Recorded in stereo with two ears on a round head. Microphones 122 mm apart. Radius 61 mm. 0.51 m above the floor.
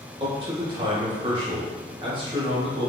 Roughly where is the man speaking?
Right.